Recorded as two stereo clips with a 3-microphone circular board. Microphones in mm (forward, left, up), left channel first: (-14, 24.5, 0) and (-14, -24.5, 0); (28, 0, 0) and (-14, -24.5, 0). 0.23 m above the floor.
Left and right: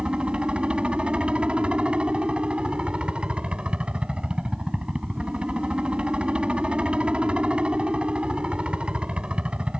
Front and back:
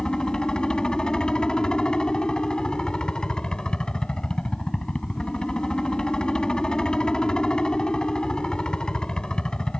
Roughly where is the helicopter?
Ahead right.